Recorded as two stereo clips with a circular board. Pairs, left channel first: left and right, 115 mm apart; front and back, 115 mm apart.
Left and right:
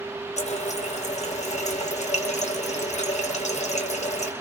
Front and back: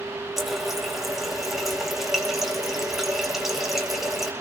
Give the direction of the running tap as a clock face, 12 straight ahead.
9 o'clock.